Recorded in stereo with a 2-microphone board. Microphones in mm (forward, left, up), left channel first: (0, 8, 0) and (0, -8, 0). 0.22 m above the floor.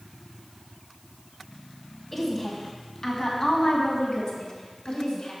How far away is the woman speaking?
About 1.7 m.